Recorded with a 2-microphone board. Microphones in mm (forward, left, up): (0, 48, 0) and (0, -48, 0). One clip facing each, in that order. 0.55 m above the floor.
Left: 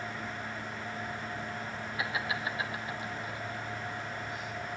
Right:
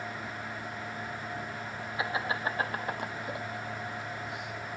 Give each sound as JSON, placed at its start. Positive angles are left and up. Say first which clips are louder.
{"t": 2.0, "sound": "laughter", "louder": "right 3 dB", "side_deg": -25, "distance_m": 2.0}